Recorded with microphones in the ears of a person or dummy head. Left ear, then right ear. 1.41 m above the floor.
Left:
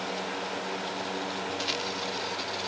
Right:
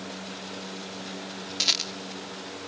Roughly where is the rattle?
Right.